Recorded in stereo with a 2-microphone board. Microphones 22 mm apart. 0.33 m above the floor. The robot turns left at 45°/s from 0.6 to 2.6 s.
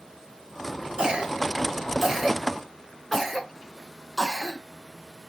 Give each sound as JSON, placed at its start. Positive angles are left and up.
{"t": 1.0, "sound": "a cough", "side_deg": -55, "distance_m": 4.0}